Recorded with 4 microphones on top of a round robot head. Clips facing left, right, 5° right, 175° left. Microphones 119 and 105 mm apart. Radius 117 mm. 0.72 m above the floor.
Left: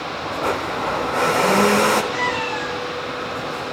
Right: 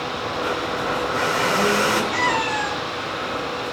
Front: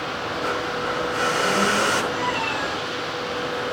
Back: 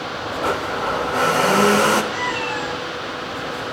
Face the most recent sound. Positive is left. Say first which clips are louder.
# right 1 dB, back 1 dB
turn(degrees=-130)